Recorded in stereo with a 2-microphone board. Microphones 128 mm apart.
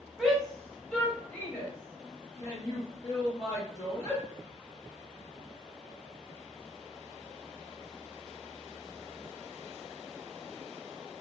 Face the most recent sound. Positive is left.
turn(degrees=25)  # may be behind; listen again after turning